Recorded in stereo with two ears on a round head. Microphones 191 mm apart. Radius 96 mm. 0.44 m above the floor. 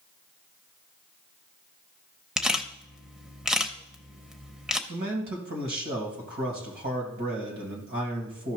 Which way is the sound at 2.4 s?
5° right (ahead or behind).